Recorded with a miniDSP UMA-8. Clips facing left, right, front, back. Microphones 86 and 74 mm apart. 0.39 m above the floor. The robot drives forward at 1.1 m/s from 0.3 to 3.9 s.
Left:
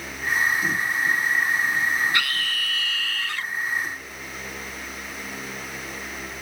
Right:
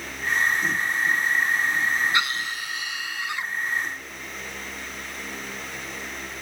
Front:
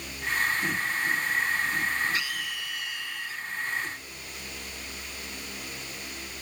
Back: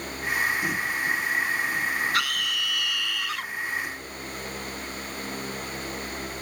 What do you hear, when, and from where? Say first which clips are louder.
2.1 s a scream: even, back 5 dB; 160° right; by 3.5 s 165° right